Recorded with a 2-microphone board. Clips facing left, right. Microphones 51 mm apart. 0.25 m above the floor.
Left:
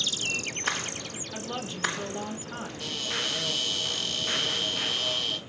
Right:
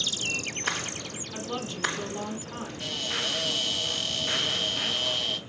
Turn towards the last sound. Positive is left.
turn(degrees=-5)  # may be behind; listen again after turning